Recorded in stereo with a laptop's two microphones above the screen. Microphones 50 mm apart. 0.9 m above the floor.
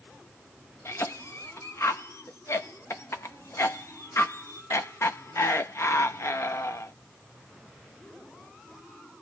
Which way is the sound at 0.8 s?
65° left (ahead or behind).